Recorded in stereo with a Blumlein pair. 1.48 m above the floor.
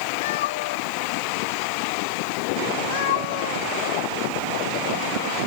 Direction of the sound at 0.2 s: 55° left.